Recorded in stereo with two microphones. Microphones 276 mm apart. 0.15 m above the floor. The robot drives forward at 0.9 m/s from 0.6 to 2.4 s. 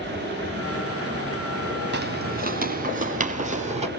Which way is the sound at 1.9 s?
35° right (ahead or behind).